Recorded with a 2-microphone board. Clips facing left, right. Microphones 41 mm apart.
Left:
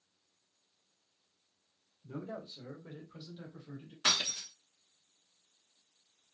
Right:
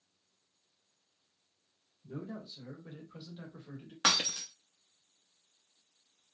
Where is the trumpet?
No trumpet in this recording.